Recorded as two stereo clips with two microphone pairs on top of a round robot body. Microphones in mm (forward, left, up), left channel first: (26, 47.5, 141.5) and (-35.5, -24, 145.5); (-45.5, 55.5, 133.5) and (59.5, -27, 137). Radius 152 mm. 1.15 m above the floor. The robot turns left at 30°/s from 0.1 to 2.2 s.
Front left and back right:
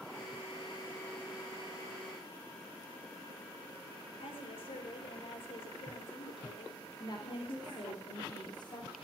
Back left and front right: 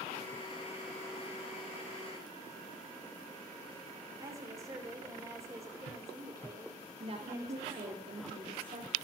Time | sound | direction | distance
4.2 | a woman speaking | 30° left | 5 m
7.0 | a woman speaking | 5° left | 3 m